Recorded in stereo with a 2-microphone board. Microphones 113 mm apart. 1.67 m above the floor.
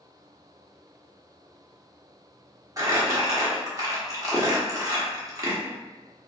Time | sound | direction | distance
2.8 | crumpling | 30° right (ahead or behind) | 1.1 m